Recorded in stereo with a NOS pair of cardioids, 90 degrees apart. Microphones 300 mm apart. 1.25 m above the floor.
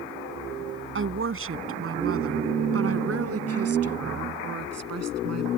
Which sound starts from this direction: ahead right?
A woman speaking, at 0.9 s.